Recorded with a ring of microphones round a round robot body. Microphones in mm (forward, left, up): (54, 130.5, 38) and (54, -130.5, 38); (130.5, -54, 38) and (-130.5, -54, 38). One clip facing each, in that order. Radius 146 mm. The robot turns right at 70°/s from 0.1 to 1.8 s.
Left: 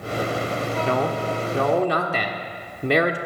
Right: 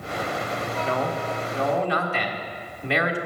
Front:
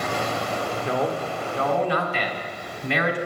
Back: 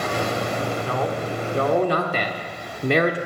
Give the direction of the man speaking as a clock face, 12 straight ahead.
10 o'clock.